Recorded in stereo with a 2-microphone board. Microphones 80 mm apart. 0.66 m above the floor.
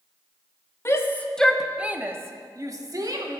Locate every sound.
0.8 s a shout: 35° left (ahead or behind), 0.8 m; by 3.4 s 60° right (ahead or behind), 1.6 m